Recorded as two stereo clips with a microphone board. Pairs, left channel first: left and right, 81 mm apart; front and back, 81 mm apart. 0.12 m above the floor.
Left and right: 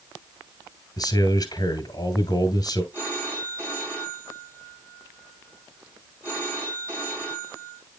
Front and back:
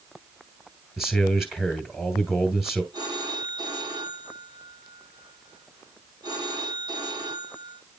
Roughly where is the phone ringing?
Behind.